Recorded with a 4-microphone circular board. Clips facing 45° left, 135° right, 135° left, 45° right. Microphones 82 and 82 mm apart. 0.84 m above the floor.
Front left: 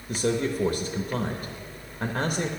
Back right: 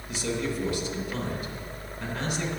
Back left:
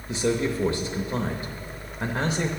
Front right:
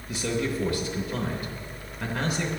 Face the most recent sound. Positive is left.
turn(degrees=75)